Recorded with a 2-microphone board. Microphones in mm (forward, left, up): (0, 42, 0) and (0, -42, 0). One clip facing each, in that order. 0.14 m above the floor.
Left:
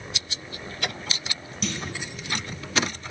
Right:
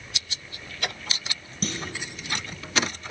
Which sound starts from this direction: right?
A clunk, at 1.6 s.